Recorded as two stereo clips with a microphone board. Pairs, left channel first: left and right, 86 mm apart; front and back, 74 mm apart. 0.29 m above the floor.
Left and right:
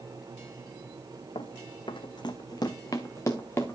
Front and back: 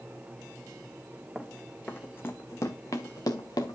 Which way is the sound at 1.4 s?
90° left.